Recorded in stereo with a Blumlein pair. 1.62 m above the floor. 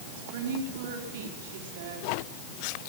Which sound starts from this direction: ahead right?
A woman speaking, at 0.2 s.